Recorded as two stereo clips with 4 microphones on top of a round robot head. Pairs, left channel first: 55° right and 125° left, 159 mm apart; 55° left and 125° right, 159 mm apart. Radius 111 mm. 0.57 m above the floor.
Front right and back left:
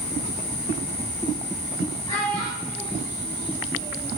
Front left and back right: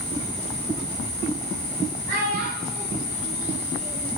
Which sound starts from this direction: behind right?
A child speaking, at 2.1 s.